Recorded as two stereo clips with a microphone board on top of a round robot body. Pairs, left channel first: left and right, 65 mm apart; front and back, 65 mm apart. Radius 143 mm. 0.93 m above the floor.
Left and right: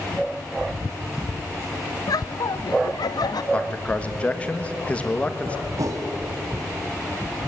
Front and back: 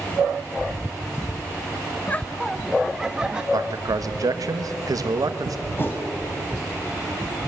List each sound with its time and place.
2.1 s laughter: 65° left, 0.7 m; by 3.4 s 100° left, 1.5 m
3.5 s a man speaking: 160° left, 1.4 m
5.8 s a whoosh: 55° right, 2 m